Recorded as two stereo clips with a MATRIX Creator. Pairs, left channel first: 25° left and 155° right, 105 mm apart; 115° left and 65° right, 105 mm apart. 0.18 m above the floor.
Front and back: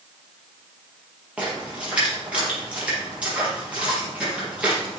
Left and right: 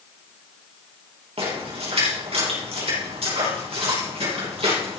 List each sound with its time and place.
1.4 s a splash: 80° right, 4.5 m